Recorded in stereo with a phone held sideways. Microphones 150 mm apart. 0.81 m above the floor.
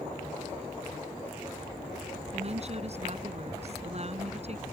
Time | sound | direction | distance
2.3 | a woman speaking | 45° right (ahead or behind) | ?